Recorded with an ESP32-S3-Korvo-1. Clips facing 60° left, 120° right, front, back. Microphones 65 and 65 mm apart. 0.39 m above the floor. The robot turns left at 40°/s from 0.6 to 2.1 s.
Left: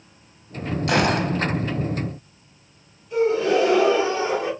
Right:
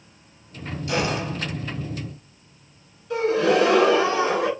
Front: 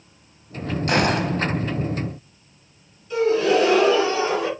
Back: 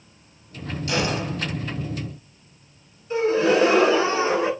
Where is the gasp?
120° right, 2 m.